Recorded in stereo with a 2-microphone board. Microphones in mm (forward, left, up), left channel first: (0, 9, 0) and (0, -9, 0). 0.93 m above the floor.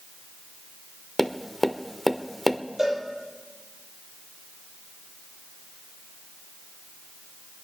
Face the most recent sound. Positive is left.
turn(degrees=-20)  # may be behind; listen again after turning